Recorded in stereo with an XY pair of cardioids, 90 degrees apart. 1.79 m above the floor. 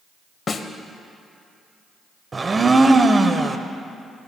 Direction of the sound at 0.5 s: 45° left.